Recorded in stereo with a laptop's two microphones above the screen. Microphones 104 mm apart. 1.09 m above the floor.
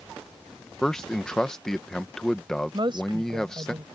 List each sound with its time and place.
0.8 s a man speaking: 5° left (ahead or behind)
2.7 s a woman speaking: 45° right (ahead or behind)